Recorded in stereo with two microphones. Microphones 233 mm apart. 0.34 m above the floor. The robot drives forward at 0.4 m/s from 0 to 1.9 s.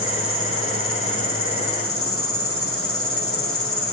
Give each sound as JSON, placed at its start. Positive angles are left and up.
{"t": 0.0, "sound": "an insect", "side_deg": 65, "distance_m": 4.0}